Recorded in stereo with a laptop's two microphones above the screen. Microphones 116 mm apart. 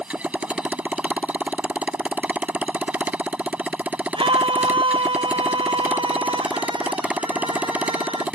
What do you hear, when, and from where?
0.0 s a motorcycle: 10° right (ahead or behind)
4.1 s a scream: 50° right (ahead or behind)